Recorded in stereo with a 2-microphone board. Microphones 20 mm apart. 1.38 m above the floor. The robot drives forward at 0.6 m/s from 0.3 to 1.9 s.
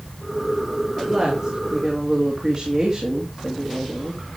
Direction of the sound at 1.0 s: 35° right (ahead or behind).